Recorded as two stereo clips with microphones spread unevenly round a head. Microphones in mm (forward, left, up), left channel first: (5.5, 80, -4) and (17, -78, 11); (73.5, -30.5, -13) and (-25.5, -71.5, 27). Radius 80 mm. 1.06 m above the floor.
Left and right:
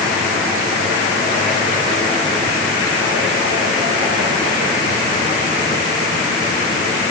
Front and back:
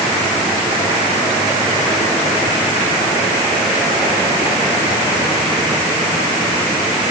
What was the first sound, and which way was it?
Only background noise.